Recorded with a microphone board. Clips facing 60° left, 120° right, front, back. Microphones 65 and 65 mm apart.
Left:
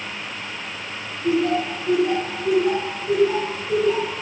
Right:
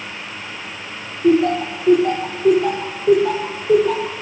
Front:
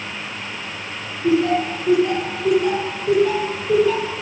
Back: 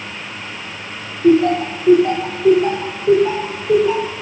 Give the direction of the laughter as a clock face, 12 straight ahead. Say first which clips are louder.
Right 5 dB, back 5 dB; 5 o'clock.